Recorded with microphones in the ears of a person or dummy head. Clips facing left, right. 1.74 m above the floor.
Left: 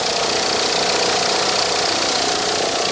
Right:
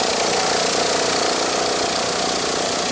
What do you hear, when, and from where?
Only background noise.